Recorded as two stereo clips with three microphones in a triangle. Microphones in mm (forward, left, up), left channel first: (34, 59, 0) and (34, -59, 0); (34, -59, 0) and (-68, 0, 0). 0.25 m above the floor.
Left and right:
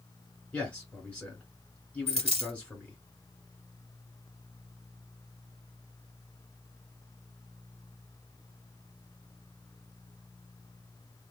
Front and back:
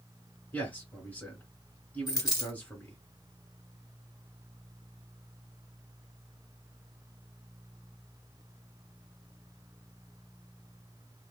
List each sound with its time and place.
0.5 s a man speaking: 25° left, 1.6 m
2.1 s a dropped coin: 85° right, 1.2 m